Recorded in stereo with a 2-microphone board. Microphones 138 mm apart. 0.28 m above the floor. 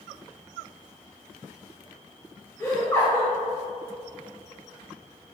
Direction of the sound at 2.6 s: 25° left (ahead or behind).